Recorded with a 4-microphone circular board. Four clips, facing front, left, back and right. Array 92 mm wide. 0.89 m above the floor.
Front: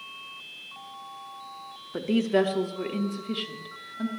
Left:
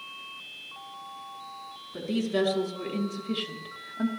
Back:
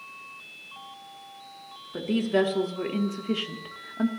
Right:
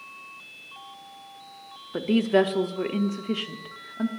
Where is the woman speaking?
70° right, 1.1 m; by 4.1 s 170° right, 1.0 m.